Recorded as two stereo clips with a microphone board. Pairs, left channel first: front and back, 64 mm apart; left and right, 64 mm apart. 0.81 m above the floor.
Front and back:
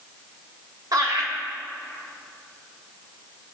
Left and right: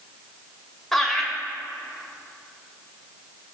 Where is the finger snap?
No finger snap in this recording.